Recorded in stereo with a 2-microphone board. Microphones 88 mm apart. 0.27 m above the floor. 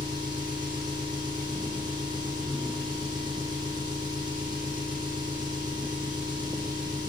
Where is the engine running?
55° right (ahead or behind), 7 m.